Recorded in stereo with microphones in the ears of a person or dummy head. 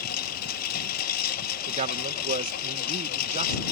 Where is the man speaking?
45° right (ahead or behind).